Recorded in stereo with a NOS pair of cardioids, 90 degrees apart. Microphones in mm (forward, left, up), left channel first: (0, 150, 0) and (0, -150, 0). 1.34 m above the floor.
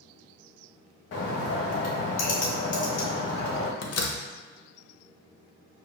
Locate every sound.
1.1 s a bird: 45° left, 1.3 m
3.8 s a door slam: 55° left, 0.8 m